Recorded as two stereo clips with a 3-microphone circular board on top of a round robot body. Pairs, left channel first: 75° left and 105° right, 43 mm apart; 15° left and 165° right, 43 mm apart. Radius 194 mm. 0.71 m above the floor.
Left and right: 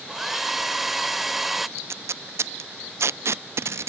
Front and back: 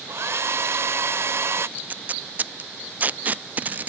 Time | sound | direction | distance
0.1 | a hair dryer | 170° left | ?
1.8 | tape being pulled | 110° right | ?